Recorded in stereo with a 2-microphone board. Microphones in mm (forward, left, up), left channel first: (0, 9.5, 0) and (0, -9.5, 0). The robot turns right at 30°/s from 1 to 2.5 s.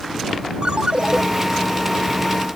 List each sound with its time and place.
0.6 s a ringtone: 60° right (ahead or behind); by 1.2 s 55° right (ahead or behind)